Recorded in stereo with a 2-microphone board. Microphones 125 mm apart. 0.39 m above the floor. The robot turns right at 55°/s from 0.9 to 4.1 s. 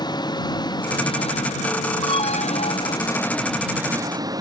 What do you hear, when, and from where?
0.0 s an engine running: 35° left; by 4.4 s 150° right
2.0 s an alarm: 40° left; by 3.0 s 95° left